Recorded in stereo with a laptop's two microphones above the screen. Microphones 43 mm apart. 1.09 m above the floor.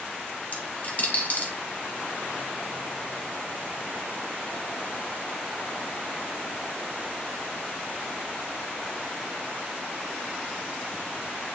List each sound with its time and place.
0.5 s a dropped coin: 40° left (ahead or behind), 1.9 m